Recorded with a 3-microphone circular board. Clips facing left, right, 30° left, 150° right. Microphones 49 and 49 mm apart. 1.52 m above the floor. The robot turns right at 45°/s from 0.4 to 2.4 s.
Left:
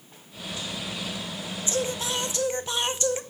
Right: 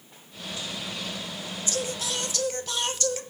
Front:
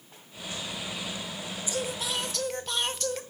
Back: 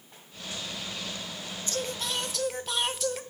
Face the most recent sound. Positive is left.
turn(degrees=125)